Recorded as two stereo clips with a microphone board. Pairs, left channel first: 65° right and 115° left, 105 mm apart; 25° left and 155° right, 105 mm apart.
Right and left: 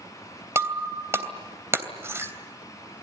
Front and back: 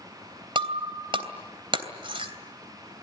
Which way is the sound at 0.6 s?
175° left.